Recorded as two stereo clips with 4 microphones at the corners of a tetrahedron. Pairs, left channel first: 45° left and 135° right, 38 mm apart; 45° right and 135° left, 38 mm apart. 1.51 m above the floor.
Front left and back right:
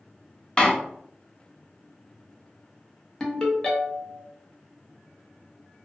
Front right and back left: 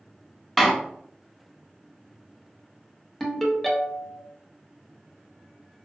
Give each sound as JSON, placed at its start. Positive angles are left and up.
{"t": 0.6, "sound": "a door slam", "azimuth_deg": 45, "distance_m": 0.5}
{"t": 3.2, "sound": "a ringtone", "azimuth_deg": 35, "distance_m": 0.7}